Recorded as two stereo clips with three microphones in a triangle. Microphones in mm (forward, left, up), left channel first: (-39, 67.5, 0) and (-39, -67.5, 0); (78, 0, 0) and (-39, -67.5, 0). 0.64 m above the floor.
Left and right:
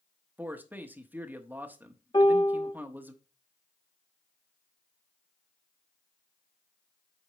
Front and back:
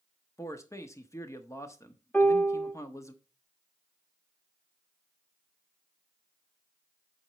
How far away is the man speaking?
About 1.0 m.